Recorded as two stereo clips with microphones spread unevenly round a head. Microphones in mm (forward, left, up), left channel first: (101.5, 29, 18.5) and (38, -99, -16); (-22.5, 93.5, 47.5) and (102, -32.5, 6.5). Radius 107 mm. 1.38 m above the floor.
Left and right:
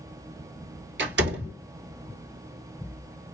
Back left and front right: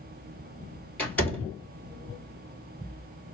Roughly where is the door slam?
Behind right.